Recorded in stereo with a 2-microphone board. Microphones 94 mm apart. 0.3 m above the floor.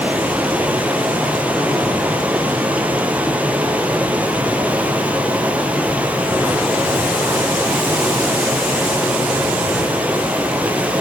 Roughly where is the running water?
Centre.